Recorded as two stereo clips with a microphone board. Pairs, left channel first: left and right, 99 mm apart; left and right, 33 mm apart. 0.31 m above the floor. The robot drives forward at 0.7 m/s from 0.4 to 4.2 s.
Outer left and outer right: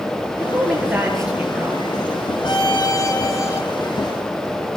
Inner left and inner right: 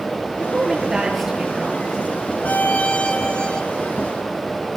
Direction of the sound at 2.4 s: 45° left (ahead or behind).